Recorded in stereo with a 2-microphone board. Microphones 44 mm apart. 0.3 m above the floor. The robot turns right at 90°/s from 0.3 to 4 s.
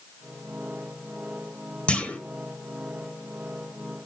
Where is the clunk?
25° left (ahead or behind), 1.3 m; by 2.2 s 30° left (ahead or behind), 1.3 m.